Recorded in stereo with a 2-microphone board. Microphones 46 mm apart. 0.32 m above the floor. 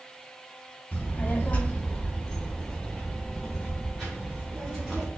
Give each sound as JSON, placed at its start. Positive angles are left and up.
{"t": 0.9, "sound": "a child speaking", "side_deg": 35, "distance_m": 1.2}